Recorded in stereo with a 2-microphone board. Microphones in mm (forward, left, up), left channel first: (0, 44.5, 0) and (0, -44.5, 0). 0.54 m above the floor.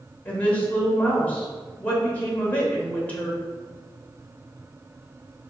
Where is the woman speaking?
20° left (ahead or behind), 1.5 m.